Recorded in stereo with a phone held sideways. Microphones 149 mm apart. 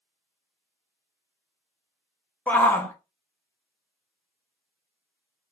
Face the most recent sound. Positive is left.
turn(degrees=10)  # may be behind; listen again after turning